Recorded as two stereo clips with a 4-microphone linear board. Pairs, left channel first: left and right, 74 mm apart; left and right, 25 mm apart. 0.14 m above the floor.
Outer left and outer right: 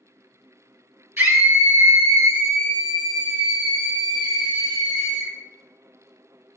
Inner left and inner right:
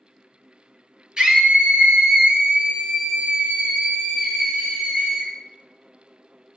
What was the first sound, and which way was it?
A scream, 35° right (ahead or behind).